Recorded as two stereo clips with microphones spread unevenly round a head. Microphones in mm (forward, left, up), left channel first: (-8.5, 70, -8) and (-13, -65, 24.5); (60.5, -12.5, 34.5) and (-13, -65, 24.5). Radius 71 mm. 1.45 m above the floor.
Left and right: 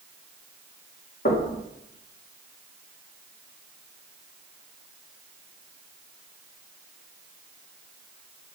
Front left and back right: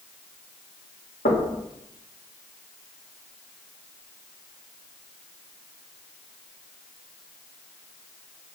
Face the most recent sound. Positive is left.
turn(degrees=45)